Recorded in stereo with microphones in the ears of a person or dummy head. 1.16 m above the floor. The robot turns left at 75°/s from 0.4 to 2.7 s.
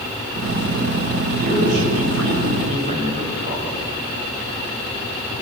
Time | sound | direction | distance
1.3 | a man speaking | 35° right | 6 m